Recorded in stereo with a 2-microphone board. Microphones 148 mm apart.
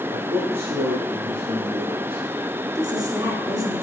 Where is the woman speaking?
25° right (ahead or behind), 1.5 m.